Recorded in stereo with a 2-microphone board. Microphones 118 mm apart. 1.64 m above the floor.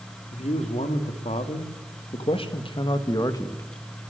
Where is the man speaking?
75° left (ahead or behind), 4.5 m; by 3.6 s 25° left (ahead or behind), 2 m.